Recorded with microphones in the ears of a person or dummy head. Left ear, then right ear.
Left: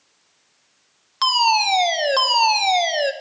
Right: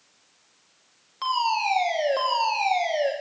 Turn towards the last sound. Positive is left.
turn(degrees=45)  # may be behind; listen again after turning